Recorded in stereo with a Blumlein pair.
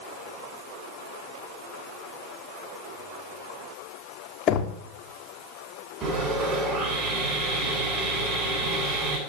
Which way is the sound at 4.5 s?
30° left.